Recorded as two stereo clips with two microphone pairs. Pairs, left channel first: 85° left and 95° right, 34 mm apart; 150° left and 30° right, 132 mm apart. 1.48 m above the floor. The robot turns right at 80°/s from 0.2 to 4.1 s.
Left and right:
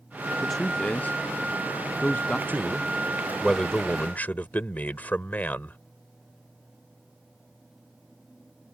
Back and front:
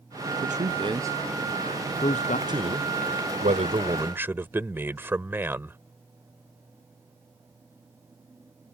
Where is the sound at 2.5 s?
85° right; by 5.8 s 45° left.